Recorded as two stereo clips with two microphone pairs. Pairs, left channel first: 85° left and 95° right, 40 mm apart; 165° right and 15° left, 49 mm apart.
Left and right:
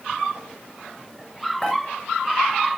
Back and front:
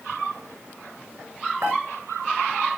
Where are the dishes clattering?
5° left, 4.5 m.